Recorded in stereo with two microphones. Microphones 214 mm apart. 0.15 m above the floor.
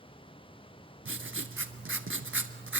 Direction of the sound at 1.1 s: 65° right (ahead or behind).